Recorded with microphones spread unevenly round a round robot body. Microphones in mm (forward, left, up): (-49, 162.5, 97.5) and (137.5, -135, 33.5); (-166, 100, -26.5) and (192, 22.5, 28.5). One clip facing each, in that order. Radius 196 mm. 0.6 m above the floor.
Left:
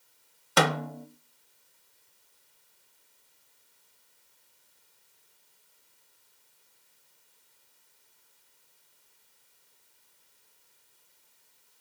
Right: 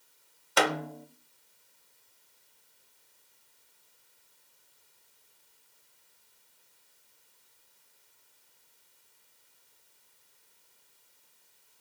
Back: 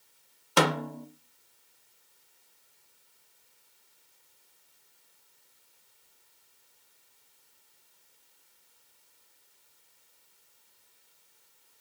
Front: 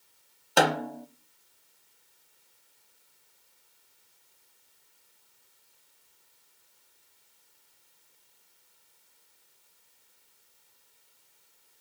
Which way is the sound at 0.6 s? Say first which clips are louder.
Left 2 dB, front 1 dB; 85° left.